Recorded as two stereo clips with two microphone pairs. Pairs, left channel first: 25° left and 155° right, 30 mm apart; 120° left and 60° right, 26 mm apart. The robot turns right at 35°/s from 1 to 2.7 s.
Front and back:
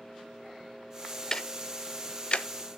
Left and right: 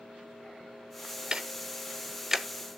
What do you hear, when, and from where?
1.3 s ticking: 25° right, 0.6 m; by 2.8 s 20° left, 0.6 m